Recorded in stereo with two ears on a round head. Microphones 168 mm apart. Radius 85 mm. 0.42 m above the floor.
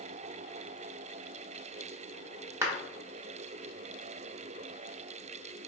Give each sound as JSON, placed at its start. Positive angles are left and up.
{"t": 2.6, "sound": "a clap", "side_deg": -15, "distance_m": 0.9}